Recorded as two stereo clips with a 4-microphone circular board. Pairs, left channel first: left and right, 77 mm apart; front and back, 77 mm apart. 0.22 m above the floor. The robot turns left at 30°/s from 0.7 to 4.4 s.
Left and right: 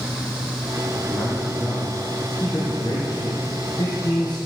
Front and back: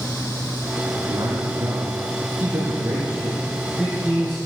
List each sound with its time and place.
0.8 s a man speaking: straight behind, 3.5 m; by 4.4 s 75° left, 3.5 m